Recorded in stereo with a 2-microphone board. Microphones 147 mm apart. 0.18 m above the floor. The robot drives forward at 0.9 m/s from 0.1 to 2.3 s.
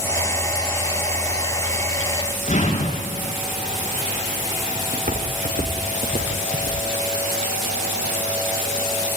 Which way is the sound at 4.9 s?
85° right.